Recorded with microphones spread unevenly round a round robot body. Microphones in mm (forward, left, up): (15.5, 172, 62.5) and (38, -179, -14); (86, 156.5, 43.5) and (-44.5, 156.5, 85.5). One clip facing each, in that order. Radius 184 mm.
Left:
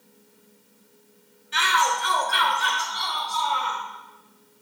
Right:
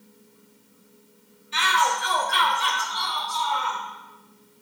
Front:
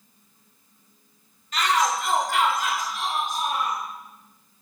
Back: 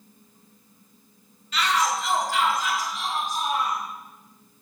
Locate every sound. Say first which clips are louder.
1.5 s a shout: even, front 1 dB; 25° left, 3 m; by 3.8 s 25° right, 4.5 m